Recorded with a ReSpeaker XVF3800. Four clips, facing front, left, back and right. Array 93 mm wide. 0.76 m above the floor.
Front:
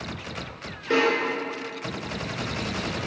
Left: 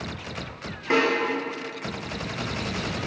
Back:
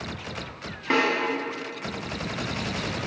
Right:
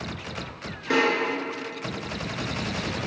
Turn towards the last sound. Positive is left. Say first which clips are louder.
# even, front 1 dB
turn(degrees=150)